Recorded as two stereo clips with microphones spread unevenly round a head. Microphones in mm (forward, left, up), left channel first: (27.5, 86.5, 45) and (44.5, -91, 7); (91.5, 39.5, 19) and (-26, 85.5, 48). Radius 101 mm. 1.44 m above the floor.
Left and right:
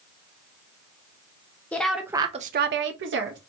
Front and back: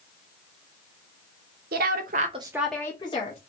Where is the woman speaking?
Straight behind, 0.8 m; by 3.4 s 70° right, 0.9 m.